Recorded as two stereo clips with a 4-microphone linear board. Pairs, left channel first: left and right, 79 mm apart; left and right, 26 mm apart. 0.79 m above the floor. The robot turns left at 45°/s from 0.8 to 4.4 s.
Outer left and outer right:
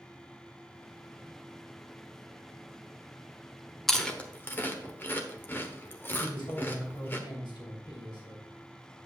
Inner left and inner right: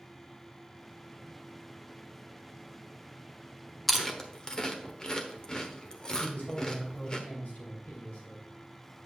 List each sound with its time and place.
3.9 s chewing: 5° left (ahead or behind), 1.0 m; by 7.2 s 30° left (ahead or behind), 1.0 m
6.2 s a man speaking: 75° left (ahead or behind), 3.5 m